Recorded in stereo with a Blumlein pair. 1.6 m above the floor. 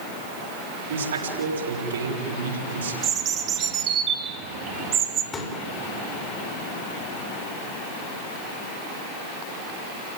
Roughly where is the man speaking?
Ahead right.